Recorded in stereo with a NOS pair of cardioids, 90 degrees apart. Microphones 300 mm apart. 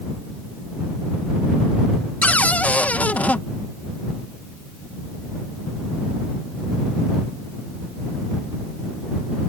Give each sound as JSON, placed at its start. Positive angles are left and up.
{"t": 2.2, "sound": "a cupboard door", "azimuth_deg": 5}